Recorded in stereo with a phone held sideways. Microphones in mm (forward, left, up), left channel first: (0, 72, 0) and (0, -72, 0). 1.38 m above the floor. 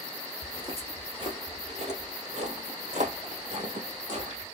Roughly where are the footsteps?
Right.